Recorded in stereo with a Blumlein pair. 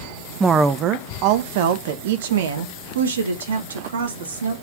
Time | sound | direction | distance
0.4 | a woman speaking | 10° right | 0.7 m